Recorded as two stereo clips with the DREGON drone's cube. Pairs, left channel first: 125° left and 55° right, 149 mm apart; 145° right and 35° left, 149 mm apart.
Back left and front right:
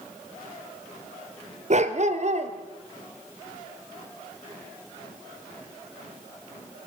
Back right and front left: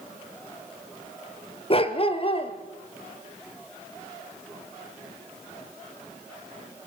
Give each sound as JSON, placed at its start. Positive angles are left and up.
{"t": 1.7, "sound": "a dog barking", "azimuth_deg": -95, "distance_m": 1.6}